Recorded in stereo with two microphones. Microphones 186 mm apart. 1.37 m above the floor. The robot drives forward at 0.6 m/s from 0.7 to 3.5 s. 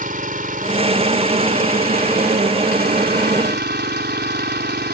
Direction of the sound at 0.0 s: 50° right (ahead or behind).